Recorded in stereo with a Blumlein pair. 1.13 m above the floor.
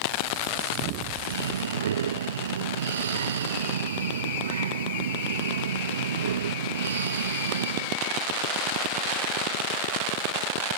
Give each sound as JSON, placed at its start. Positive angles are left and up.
{"t": 1.2, "sound": "breathing", "azimuth_deg": -65}